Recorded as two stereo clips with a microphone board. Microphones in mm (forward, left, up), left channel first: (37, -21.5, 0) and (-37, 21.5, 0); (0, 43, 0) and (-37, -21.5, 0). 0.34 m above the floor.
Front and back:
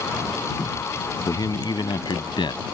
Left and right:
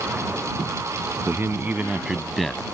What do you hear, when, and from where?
1.3 s a man speaking: 70° right; by 2.6 s 20° right